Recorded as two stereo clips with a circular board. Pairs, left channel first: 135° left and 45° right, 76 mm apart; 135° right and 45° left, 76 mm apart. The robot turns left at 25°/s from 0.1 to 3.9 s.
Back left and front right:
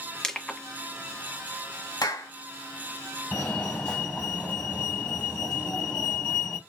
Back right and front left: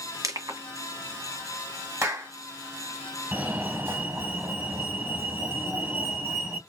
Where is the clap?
95° left, 1.9 m; by 2.3 s 90° left, 1.9 m.